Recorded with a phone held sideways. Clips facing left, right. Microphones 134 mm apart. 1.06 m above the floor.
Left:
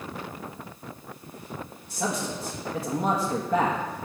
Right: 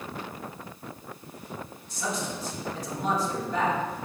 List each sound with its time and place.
1.9 s a man speaking: 70° left (ahead or behind), 1.5 m